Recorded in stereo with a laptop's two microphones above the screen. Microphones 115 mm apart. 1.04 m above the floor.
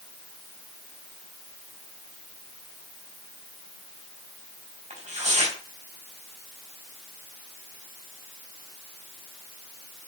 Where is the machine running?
I don't hear a machine running.